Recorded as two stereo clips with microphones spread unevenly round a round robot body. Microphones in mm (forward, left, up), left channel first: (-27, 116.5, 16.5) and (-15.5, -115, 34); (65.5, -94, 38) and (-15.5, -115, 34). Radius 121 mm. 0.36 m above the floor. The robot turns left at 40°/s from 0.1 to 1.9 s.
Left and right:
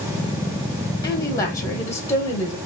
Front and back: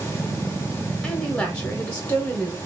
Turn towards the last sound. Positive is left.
turn(degrees=55)